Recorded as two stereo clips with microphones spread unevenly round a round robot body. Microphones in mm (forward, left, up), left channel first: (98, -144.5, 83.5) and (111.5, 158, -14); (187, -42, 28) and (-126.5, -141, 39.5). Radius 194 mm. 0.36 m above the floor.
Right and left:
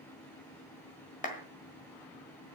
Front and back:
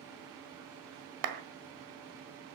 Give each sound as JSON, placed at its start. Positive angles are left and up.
{"t": 1.2, "sound": "a clap", "azimuth_deg": -170, "distance_m": 1.6}